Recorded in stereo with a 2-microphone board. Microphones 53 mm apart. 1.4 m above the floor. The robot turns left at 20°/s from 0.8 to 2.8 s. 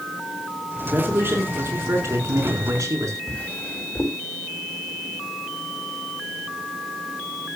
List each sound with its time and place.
0.9 s a man speaking: 35° right, 4.5 m; by 3.2 s 75° right, 4.5 m
3.3 s a drawer: 25° left (ahead or behind), 5.5 m